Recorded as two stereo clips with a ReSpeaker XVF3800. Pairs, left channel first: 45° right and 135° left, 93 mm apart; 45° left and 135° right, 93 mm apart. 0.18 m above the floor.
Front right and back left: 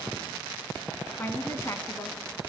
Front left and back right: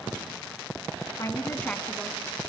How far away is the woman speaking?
About 2.0 m.